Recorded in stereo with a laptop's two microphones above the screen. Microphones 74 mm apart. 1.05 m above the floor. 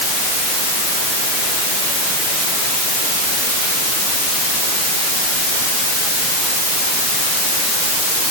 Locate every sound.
Only background noise.